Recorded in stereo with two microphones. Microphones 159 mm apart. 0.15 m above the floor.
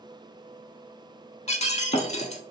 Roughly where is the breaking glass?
Left.